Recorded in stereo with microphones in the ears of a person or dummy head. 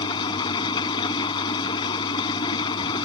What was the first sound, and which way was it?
An engine running, 30° left (ahead or behind).